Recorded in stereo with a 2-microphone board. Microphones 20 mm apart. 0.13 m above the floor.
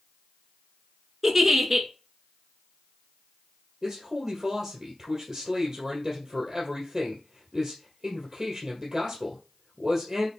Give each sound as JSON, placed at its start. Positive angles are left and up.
{"t": 1.2, "sound": "a giggle", "side_deg": -10, "distance_m": 1.3}
{"t": 3.8, "sound": "a man speaking", "side_deg": -10, "distance_m": 2.0}